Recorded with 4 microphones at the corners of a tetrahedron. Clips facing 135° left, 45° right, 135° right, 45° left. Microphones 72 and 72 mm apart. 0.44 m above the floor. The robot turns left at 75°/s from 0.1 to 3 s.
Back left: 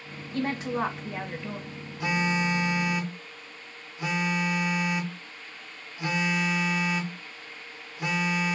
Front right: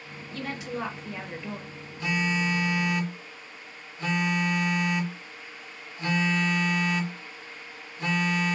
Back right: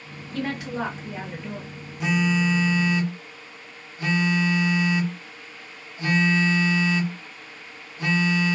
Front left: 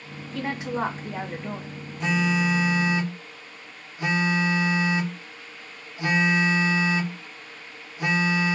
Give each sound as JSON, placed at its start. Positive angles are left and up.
{"t": 0.3, "sound": "a woman speaking", "azimuth_deg": 125, "distance_m": 1.2}
{"t": 2.0, "sound": "a phone buzzing", "azimuth_deg": 160, "distance_m": 0.7}